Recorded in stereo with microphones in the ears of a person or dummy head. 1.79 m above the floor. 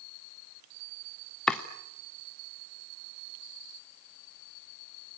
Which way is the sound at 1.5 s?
5° left (ahead or behind).